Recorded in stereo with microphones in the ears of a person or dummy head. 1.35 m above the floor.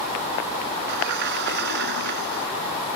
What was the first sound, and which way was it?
A sliding door, 60° right (ahead or behind).